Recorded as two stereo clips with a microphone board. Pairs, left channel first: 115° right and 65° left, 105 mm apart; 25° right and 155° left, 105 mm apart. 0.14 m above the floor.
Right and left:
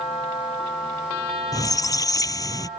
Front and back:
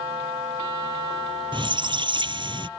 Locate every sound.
1.5 s a squeak: 165° right